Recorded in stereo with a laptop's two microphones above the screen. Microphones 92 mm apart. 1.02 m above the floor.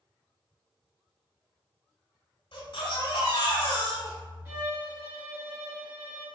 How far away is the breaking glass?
No breaking glass in this recording.